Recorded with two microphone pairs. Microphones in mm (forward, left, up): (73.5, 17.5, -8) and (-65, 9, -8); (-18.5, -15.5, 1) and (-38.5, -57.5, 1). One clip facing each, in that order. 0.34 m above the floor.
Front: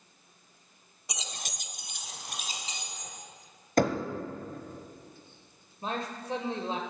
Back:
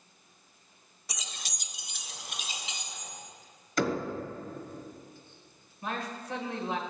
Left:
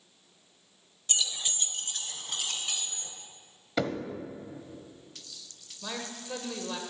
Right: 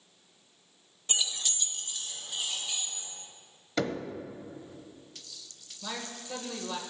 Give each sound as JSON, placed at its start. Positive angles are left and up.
{"t": 1.1, "sound": "keys jangling", "azimuth_deg": -60, "distance_m": 0.8}
{"t": 3.8, "sound": "knocking", "azimuth_deg": -20, "distance_m": 1.3}
{"t": 5.8, "sound": "a man speaking", "azimuth_deg": -10, "distance_m": 1.5}